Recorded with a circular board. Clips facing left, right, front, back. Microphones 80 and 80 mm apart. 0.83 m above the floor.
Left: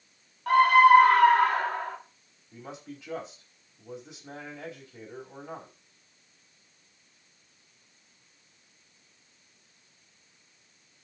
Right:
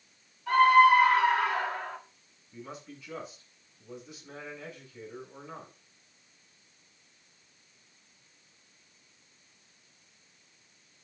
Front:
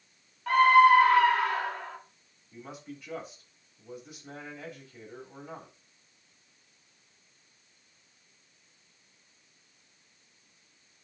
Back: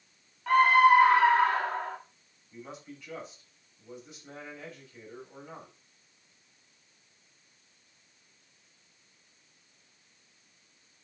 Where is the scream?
95° left, 2 m; by 2.0 s 140° left, 2.0 m.